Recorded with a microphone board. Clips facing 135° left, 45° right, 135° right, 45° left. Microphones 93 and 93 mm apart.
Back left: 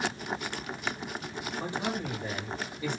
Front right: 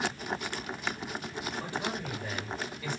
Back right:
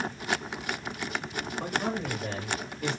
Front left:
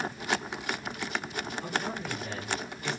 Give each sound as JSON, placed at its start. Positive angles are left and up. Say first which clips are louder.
{"t": 1.6, "sound": "a man speaking", "louder": "back left 4 dB, back right 4 dB", "azimuth_deg": -155, "distance_m": 7.5}